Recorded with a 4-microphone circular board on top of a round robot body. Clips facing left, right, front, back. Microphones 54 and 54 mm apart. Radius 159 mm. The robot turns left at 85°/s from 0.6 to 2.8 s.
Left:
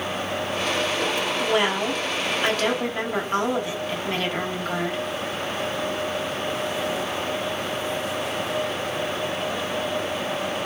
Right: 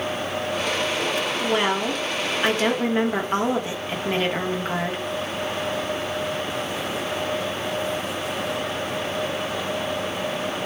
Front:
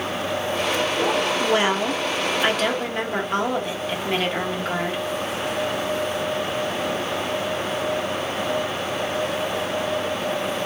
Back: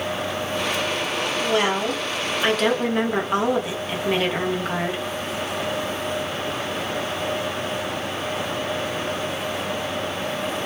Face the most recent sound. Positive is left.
turn(degrees=-100)